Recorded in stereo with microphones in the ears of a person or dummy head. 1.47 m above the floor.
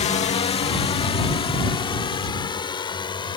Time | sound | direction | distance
0.0 | a drone | 30° left (ahead or behind) | ?